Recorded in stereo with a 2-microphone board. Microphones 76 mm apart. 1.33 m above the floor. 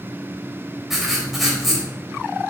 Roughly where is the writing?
Centre.